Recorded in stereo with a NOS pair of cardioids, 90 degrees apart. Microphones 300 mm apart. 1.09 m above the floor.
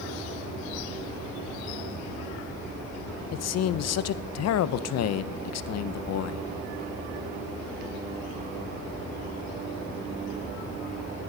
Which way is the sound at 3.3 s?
60° left.